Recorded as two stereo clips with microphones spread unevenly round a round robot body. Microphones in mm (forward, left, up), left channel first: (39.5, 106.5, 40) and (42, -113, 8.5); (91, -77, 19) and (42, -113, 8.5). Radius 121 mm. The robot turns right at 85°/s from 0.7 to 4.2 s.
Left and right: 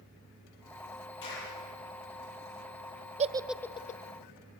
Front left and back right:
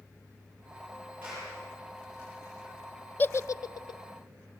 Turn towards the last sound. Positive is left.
turn(degrees=55)